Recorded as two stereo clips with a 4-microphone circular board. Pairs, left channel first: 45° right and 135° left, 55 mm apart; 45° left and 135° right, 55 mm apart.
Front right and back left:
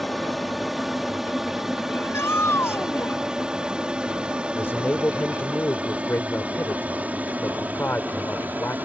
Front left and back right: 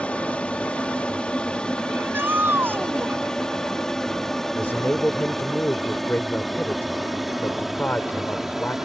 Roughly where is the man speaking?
Ahead.